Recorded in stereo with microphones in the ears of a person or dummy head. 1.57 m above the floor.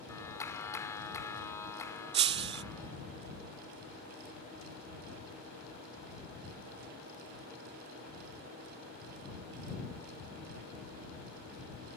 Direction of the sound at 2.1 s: 35° right (ahead or behind).